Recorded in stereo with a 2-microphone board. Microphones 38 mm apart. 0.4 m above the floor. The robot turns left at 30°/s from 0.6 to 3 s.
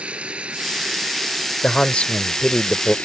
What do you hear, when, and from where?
0.0 s running water: 150° right; by 3.0 s 135° left
1.6 s a man speaking: 65° left; by 3.0 s 25° left